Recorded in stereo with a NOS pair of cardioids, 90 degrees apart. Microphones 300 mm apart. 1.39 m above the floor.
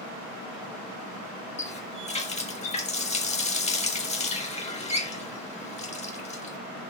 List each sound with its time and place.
1.6 s a running tap: 20° left, 2 m